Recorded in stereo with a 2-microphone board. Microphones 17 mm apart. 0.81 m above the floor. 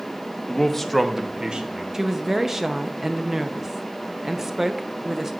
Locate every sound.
0.5 s a man speaking: 20° left (ahead or behind), 0.9 m; by 1.8 s 55° right (ahead or behind), 1.1 m
1.9 s a woman speaking: 25° right (ahead or behind), 0.5 m